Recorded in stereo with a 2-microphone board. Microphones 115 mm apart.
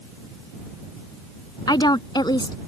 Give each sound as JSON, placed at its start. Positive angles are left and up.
{"t": 1.7, "sound": "a woman speaking", "side_deg": 40}